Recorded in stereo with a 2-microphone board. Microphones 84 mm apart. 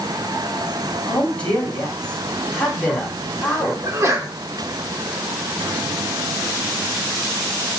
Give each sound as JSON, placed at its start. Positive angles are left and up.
{"t": 1.1, "sound": "a man speaking", "side_deg": 15, "distance_m": 7.5}
{"t": 3.8, "sound": "a sneeze", "side_deg": -40, "distance_m": 4.0}